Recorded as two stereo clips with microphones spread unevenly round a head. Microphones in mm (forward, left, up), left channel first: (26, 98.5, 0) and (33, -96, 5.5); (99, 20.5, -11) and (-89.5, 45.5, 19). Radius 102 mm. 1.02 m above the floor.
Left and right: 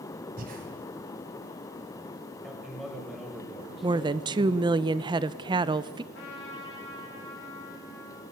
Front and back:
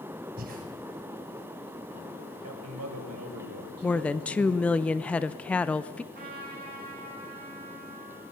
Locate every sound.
0.4 s breathing: 140° right, 3 m
2.4 s a man speaking: straight behind, 4.5 m
3.8 s a woman speaking: 55° right, 0.6 m
6.1 s a trumpet: 130° left, 6 m